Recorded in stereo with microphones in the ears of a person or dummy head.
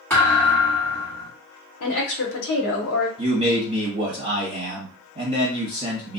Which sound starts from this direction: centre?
A thud, at 0.1 s.